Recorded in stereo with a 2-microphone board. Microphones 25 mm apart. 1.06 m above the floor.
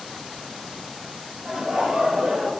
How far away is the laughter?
About 0.9 m.